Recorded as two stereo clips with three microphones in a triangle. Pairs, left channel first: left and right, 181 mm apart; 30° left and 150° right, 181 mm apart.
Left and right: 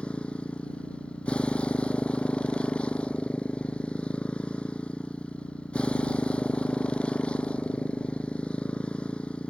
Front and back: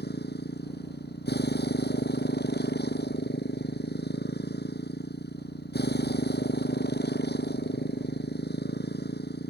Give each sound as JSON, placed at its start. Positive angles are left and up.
{"t": 0.0, "sound": "a motorcycle", "azimuth_deg": 5}